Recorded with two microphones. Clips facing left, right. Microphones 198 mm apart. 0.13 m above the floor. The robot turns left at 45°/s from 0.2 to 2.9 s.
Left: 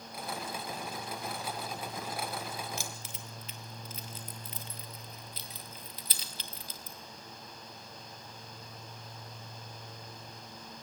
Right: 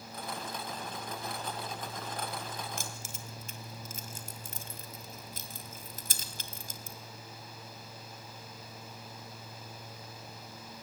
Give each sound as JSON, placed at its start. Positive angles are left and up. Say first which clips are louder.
{"t": 2.8, "sound": "keys jangling", "louder": "even", "side_deg": -50, "distance_m": 2.0}